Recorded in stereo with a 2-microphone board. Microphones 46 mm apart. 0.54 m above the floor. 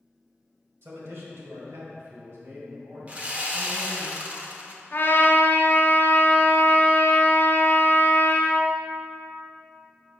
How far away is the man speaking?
About 2 m.